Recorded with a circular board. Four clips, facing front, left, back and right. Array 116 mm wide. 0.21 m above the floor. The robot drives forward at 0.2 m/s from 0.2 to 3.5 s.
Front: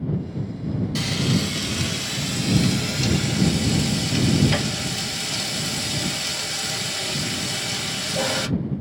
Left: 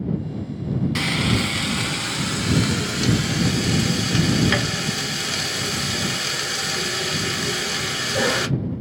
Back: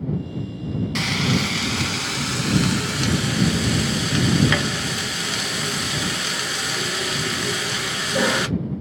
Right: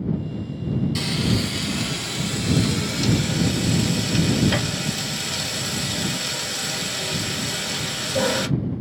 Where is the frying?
130° left, 0.6 m; by 8.5 s 155° left, 1.0 m.